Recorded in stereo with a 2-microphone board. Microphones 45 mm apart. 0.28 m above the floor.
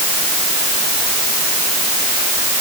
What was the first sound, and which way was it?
Only background noise.